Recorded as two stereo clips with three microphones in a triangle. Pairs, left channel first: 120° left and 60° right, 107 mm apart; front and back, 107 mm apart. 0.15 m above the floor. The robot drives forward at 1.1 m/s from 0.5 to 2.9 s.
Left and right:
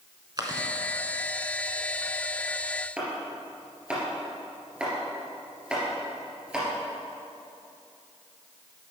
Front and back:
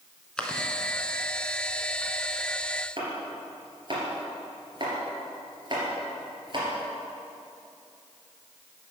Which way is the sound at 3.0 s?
140° right.